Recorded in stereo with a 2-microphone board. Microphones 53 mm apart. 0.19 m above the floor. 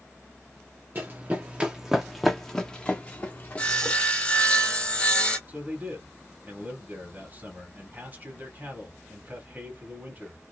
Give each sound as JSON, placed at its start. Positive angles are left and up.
{"t": 0.9, "sound": "running footsteps", "side_deg": -40, "distance_m": 1.1}
{"t": 3.6, "sound": "sawing", "side_deg": 25, "distance_m": 1.1}
{"t": 5.5, "sound": "a man speaking", "side_deg": -35, "distance_m": 2.0}